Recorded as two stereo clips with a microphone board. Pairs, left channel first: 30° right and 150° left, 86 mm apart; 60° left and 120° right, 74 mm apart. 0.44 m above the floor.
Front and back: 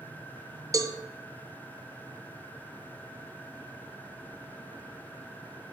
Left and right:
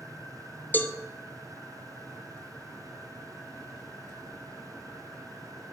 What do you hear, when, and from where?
0.7 s a cowbell: 120° left, 0.5 m